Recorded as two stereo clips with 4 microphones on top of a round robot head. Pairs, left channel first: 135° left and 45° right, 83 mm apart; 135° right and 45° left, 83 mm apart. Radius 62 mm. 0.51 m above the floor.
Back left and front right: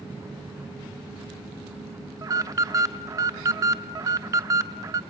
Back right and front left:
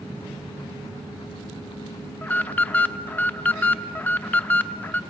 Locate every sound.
2.2 s an alarm: 75° right, 0.6 m